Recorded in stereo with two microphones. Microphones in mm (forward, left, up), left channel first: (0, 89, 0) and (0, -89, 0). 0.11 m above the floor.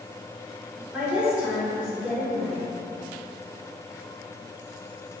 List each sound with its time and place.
0.9 s a woman speaking: 5° right (ahead or behind), 1.1 m